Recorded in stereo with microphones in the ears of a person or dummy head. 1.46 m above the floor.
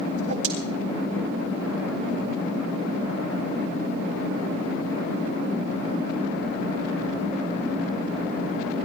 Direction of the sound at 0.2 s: 70° right (ahead or behind).